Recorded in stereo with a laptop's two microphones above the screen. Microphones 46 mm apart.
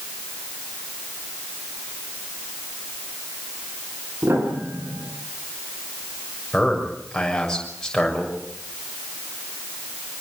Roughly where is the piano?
Right.